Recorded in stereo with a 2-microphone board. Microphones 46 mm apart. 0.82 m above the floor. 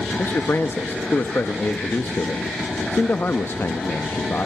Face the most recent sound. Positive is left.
turn(degrees=55)  # may be behind; listen again after turning